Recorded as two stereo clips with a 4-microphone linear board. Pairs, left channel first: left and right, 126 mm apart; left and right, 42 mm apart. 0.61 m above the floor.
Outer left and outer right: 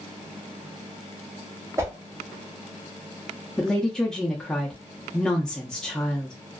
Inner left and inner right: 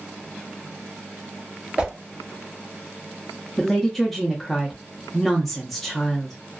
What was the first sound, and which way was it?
A whoosh, 20° right (ahead or behind).